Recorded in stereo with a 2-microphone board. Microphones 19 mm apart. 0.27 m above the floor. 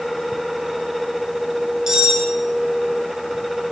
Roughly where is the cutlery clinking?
Right.